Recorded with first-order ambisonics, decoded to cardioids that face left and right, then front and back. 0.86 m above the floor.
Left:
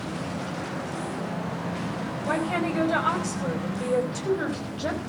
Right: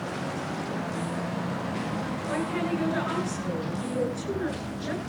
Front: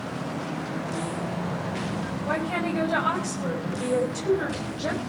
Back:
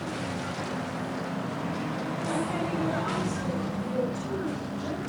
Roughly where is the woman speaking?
Ahead left.